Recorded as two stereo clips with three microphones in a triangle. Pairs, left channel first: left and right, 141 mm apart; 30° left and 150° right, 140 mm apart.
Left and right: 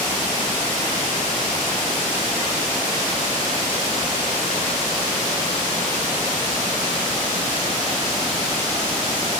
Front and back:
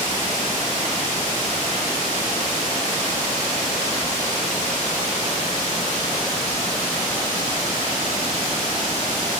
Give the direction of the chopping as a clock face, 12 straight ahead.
No chopping in this recording.